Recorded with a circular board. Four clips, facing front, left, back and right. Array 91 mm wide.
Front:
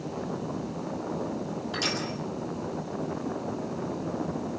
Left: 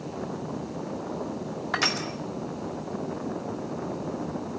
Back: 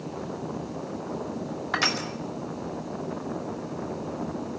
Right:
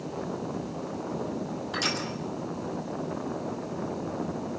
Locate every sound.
1.7 s crushing: 140° left, 2.5 m